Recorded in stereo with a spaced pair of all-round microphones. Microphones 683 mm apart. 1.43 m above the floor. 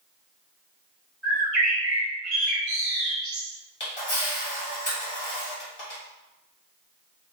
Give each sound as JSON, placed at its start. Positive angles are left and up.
{"t": 1.2, "sound": "a bird", "side_deg": -20, "distance_m": 1.7}
{"t": 3.8, "sound": "a camera shutter", "side_deg": 40, "distance_m": 1.4}